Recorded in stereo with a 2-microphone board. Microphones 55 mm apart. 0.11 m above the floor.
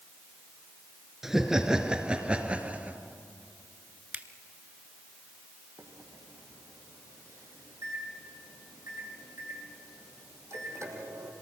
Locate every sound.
1.2 s laughter: 5° right (ahead or behind), 2 m; by 3.0 s 25° right (ahead or behind), 2.5 m
4.1 s a finger snap: 25° right (ahead or behind), 1.0 m
5.8 s a microwave: 60° right (ahead or behind), 3 m